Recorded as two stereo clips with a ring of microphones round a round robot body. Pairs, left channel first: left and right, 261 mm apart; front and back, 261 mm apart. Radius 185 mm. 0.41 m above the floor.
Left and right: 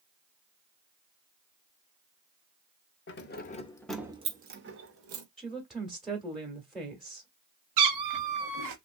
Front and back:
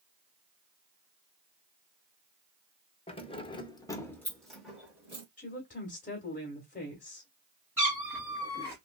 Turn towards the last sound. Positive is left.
turn(degrees=-95)